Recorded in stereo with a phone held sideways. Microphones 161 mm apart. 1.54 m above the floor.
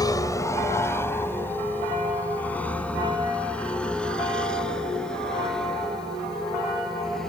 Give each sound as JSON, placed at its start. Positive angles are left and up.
{"t": 0.0, "sound": "a vehicle", "side_deg": 25}